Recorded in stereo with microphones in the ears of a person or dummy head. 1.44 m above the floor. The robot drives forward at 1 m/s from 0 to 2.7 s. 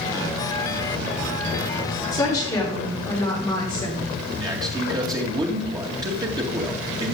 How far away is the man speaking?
About 2 m.